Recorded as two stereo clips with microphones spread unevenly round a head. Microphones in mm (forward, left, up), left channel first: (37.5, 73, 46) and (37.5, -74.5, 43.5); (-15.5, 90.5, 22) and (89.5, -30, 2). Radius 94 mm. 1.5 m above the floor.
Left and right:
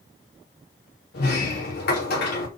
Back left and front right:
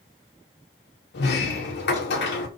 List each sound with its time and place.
1.1 s a sliding door: 120° left, 3 m